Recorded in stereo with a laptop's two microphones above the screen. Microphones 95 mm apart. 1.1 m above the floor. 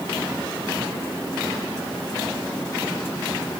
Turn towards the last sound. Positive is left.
No sound to turn to.